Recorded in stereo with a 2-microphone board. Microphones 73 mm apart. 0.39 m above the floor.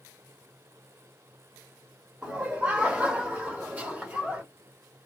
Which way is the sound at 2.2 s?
20° right (ahead or behind).